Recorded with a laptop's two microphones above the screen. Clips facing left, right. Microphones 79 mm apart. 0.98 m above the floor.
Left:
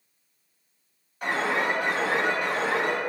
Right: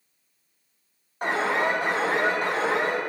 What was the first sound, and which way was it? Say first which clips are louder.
An alarm: right 2 dB; 35° right (ahead or behind).